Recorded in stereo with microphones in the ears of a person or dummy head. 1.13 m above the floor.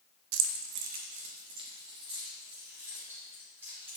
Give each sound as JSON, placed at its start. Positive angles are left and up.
{"t": 0.3, "sound": "keys jangling", "side_deg": -85, "distance_m": 0.6}